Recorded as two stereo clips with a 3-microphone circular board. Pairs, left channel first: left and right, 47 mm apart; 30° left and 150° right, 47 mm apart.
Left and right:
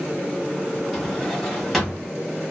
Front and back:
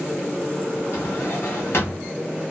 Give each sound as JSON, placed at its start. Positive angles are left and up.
{"t": 0.9, "sound": "a drawer", "azimuth_deg": 5, "distance_m": 1.5}